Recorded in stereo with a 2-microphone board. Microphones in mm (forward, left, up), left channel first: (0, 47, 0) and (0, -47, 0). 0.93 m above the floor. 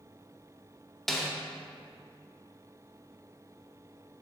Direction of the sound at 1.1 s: 5° left (ahead or behind).